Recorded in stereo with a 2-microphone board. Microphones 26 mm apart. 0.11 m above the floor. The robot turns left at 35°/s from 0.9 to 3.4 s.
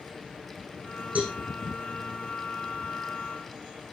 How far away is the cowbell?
About 5 m.